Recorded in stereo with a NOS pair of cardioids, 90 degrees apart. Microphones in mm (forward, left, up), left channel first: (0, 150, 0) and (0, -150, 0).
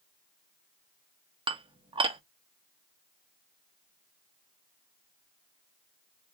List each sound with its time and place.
1.5 s dishes clattering: 20° right, 0.8 m